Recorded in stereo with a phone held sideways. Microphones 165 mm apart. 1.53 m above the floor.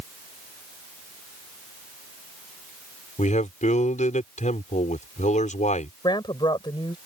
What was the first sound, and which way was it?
A man speaking, 50° left (ahead or behind).